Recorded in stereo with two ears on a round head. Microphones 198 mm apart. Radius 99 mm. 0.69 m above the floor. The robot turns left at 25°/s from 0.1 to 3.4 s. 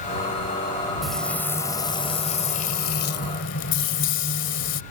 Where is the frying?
Straight behind; by 4.8 s 120° left.